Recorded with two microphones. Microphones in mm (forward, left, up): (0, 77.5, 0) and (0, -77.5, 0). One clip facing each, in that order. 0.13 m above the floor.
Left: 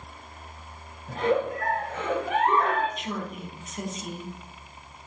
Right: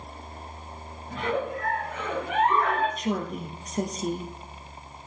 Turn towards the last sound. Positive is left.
turn(degrees=-40)  # may be behind; listen again after turning